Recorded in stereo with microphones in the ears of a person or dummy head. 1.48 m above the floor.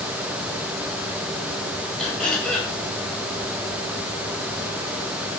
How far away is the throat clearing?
About 7 m.